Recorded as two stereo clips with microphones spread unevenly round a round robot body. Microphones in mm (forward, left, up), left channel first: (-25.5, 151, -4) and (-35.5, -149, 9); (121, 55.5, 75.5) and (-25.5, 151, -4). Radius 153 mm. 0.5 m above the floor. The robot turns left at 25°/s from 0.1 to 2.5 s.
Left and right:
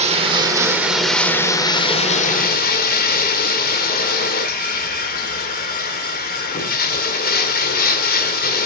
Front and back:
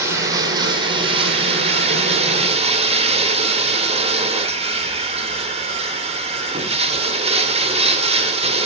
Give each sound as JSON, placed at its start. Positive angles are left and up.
{"t": 0.0, "sound": "running water", "azimuth_deg": -160, "distance_m": 1.5}